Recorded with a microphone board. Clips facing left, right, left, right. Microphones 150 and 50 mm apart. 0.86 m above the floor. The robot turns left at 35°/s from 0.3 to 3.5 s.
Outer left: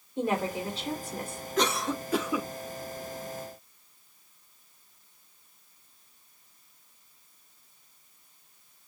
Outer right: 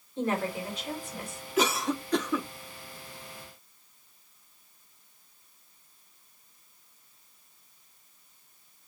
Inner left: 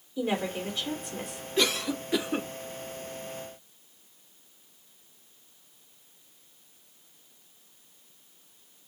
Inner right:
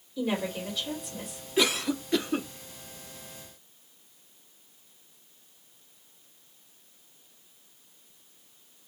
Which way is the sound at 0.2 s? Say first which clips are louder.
Outer left 1 dB, inner left 1 dB; 165° left.